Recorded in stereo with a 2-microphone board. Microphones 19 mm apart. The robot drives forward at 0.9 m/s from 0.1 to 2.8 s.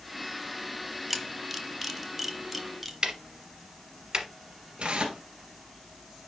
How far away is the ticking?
About 1.0 m.